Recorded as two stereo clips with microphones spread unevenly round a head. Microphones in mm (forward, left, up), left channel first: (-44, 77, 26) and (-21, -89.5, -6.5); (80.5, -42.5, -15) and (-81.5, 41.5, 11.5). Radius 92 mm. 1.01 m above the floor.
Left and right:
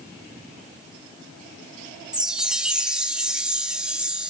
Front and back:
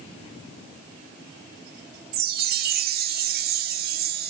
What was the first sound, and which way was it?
A chime, 170° right.